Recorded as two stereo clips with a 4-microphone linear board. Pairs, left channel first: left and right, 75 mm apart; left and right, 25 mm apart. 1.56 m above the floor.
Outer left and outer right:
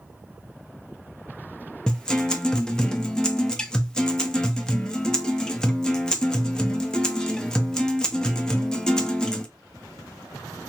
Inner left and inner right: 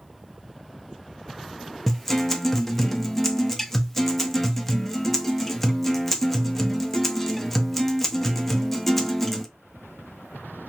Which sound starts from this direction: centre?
A guitar, at 1.9 s.